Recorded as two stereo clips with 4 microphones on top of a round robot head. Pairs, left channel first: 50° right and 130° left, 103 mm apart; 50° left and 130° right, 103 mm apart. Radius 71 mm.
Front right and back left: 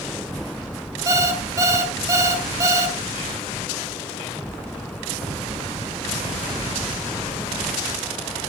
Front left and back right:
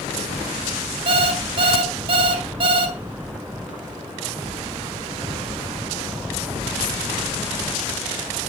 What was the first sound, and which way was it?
An alarm clock, 170° right.